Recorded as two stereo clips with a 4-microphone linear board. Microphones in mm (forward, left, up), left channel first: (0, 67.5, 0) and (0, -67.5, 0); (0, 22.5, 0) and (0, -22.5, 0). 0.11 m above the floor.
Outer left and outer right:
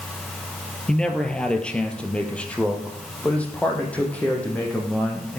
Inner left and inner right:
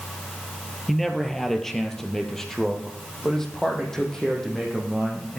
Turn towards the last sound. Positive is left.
turn(degrees=10)  # may be behind; listen again after turning